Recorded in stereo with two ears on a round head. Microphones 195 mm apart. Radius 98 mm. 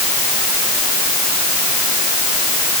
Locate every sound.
Only background noise.